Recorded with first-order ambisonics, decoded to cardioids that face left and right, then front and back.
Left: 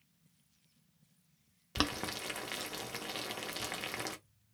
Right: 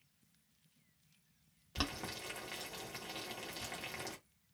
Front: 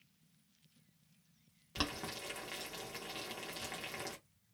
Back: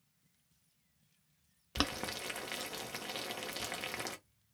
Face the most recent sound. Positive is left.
turn(degrees=130)